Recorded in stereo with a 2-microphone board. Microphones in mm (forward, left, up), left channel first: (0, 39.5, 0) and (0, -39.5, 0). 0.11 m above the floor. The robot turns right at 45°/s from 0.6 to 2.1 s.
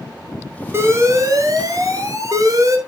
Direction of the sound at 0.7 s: 135° right.